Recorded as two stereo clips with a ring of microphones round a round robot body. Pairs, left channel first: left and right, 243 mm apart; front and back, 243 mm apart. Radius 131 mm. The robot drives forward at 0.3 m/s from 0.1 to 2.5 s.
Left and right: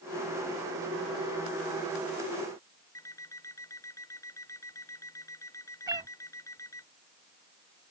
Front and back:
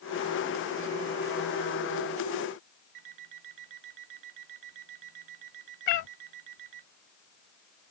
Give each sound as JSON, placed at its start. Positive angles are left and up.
{"t": 3.0, "sound": "an alarm clock", "azimuth_deg": 170}
{"t": 5.9, "sound": "a cat meowing", "azimuth_deg": -15}